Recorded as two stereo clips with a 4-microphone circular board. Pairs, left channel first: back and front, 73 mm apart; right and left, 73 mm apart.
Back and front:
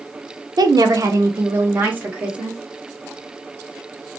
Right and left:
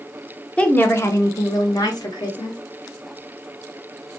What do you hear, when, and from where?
0.6 s a woman speaking: 15° right, 0.6 m; by 2.6 s 70° right, 1.4 m